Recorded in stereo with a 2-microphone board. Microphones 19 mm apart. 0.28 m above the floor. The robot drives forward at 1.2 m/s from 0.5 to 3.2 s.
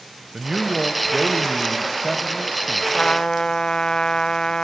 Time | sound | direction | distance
0.3 | a man speaking | 20° right (ahead or behind) | 1.4 m
2.9 | a trumpet | 50° left (ahead or behind) | 0.7 m